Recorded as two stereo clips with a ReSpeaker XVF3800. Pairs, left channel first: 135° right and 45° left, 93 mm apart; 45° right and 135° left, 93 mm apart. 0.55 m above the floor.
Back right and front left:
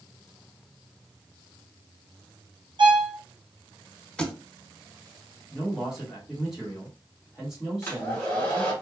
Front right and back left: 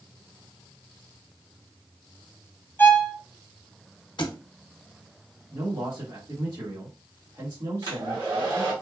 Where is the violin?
20° left, 0.7 m.